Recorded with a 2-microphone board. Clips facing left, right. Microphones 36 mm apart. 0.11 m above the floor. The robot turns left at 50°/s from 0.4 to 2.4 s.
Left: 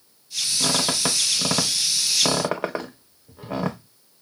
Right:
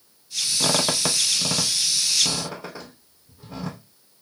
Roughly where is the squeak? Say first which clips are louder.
Right 1 dB; right.